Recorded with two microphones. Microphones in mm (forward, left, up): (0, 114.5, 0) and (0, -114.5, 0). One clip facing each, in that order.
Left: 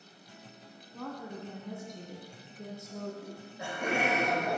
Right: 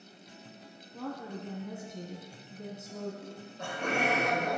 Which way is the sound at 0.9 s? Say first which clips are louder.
Right 2 dB; 5° right (ahead or behind).